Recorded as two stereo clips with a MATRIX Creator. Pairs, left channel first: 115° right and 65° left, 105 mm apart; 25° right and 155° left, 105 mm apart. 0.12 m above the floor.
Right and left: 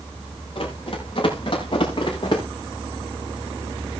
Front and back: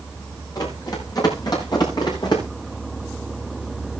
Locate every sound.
0.6 s running footsteps: 75° right, 6 m; by 2.4 s 70° right, 6.5 m